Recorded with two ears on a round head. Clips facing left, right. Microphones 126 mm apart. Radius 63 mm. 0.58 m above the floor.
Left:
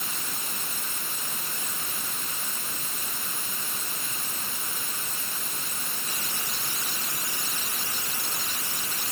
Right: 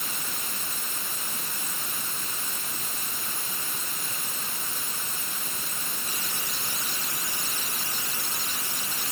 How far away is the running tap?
No running tap in this recording.